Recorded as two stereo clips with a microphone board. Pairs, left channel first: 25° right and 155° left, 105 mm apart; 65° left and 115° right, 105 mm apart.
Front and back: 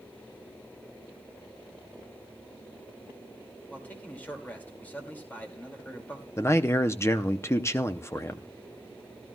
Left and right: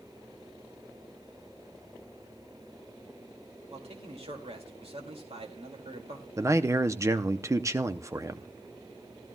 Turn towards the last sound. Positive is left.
turn(degrees=-70)